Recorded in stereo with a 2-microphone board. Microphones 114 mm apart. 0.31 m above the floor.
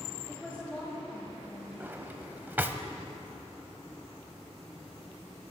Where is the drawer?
15° right (ahead or behind), 0.7 m.